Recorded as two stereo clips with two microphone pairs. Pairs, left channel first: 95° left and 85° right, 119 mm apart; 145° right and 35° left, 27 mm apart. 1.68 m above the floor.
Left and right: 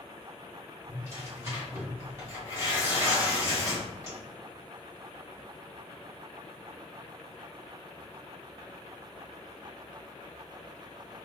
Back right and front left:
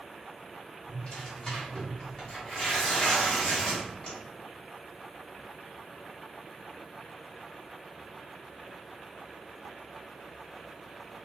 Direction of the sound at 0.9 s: 120° right.